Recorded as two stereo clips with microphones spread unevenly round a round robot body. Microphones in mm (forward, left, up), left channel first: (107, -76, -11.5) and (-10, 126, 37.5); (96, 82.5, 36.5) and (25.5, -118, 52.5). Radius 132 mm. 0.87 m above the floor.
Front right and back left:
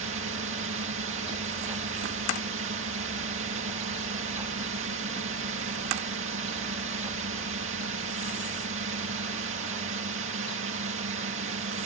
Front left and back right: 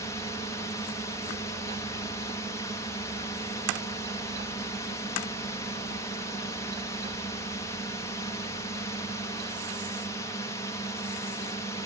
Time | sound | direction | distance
0.0 | a drone | 135° left | ?